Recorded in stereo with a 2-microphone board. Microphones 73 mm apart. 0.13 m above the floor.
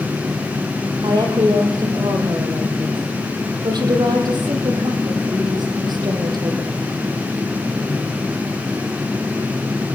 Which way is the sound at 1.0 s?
65° right (ahead or behind).